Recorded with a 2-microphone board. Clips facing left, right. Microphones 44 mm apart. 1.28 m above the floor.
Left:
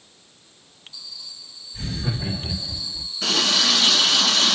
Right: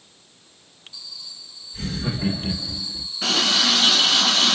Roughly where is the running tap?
Centre.